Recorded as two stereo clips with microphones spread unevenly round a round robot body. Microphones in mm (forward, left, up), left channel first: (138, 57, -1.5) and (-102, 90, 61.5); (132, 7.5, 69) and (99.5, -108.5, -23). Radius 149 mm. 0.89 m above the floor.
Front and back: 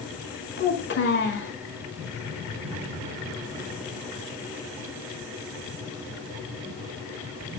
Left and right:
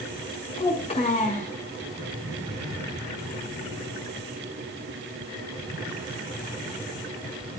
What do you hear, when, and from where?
0.6 s a child speaking: 35° left, 7.5 m